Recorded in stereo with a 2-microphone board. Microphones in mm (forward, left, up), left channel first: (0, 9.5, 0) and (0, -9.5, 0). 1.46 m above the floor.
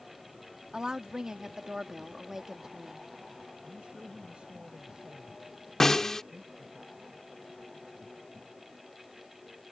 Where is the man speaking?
70° right (ahead or behind).